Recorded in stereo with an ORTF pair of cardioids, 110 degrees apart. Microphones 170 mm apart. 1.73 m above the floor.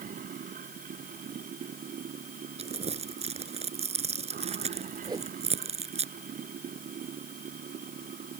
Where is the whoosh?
25° right.